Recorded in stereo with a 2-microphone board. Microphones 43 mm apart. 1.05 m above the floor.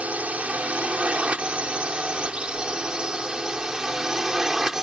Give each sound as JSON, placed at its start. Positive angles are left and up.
{"t": 0.0, "sound": "a drone", "side_deg": -35}